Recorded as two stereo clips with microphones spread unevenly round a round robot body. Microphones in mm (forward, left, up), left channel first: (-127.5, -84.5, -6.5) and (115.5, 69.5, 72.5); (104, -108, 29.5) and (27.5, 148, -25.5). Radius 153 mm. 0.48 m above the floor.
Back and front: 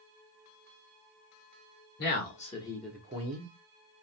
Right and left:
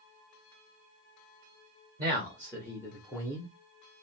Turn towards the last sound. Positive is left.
turn(degrees=20)